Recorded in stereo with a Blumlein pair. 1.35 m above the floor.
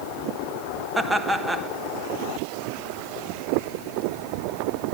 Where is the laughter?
10° right, 1.4 m.